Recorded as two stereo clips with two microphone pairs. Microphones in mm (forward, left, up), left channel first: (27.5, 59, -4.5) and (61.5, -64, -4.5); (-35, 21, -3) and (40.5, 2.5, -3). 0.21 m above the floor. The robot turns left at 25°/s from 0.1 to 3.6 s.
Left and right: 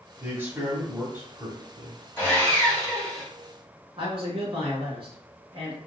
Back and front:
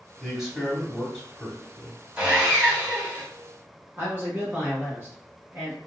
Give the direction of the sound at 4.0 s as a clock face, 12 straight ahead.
2 o'clock.